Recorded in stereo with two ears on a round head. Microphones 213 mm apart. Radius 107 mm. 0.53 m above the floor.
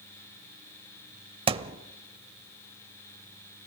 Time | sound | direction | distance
1.5 | a thud | 25° right (ahead or behind) | 0.8 m